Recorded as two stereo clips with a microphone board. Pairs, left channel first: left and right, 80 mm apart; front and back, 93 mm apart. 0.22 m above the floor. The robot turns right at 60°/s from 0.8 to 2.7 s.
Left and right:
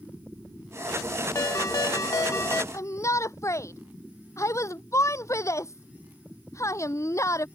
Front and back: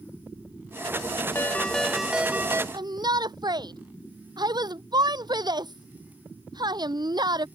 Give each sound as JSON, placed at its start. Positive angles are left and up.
{"t": 1.4, "sound": "a ringtone", "azimuth_deg": 55}
{"t": 2.7, "sound": "a shout", "azimuth_deg": 140}